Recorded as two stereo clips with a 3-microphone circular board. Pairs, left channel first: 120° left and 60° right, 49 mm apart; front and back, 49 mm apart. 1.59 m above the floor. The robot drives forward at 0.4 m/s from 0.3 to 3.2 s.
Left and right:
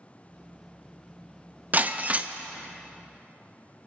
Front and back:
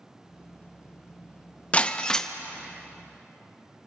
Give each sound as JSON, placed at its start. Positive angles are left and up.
{"t": 1.7, "sound": "breaking glass", "azimuth_deg": -40, "distance_m": 0.8}